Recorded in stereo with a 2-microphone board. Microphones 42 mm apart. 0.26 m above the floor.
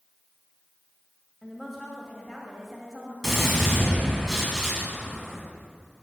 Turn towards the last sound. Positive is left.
turn(degrees=0)  # may be behind; listen again after turning